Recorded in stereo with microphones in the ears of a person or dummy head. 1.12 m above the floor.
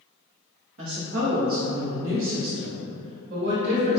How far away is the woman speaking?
About 1.2 m.